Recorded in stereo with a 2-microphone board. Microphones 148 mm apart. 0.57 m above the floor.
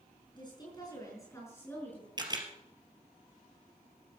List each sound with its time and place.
0.3 s a woman speaking: 30° left (ahead or behind), 6 m; by 2.1 s 10° left (ahead or behind), 6 m
2.2 s a camera shutter: 30° right (ahead or behind), 3 m